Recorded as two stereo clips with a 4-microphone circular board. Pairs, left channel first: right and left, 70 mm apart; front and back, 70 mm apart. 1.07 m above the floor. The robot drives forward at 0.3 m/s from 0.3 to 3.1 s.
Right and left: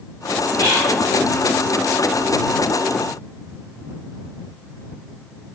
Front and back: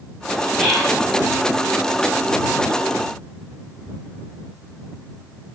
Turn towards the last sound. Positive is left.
turn(degrees=145)